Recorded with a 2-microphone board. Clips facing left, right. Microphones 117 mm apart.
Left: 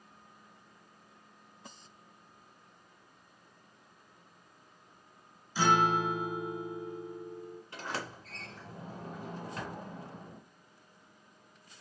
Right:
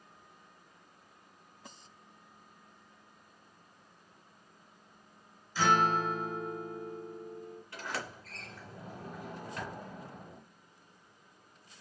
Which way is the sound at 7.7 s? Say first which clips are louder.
Left 1 dB; 20° left (ahead or behind).